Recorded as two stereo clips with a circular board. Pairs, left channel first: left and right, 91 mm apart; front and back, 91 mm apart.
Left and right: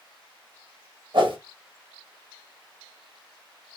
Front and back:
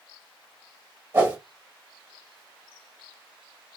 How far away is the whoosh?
About 1.4 m.